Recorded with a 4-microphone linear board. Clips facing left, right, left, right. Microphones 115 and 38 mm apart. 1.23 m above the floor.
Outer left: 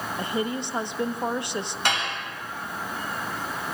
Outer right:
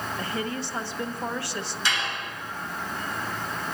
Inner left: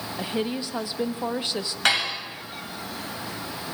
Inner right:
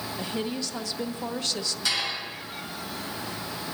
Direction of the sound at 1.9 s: 55° left (ahead or behind).